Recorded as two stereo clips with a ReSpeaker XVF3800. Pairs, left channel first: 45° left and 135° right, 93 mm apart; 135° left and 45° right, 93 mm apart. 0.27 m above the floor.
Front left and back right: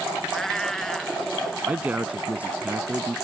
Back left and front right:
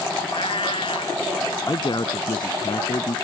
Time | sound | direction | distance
0.3 | a cat meowing | 130° left | ?
1.7 | a man speaking | 155° left | ?